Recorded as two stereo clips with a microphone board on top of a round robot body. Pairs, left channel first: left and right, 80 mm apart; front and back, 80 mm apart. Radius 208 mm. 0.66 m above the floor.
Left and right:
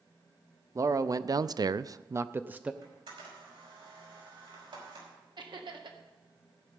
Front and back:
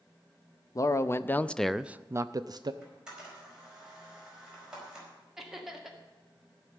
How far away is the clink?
I don't hear a clink.